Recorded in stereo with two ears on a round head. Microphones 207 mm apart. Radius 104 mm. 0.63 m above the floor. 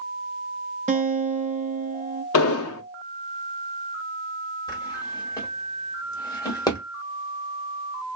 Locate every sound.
0.9 s a guitar: 30° right (ahead or behind), 0.7 m
2.3 s an explosion: 65° left (ahead or behind), 0.5 m
4.7 s a drawer: 15° left (ahead or behind), 1.0 m